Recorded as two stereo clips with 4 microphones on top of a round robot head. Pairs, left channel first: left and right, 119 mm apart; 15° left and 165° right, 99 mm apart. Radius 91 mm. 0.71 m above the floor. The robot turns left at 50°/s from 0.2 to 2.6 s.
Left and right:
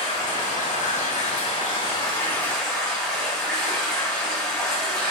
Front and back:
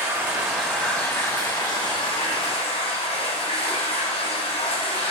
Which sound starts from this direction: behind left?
Running water, at 0.0 s.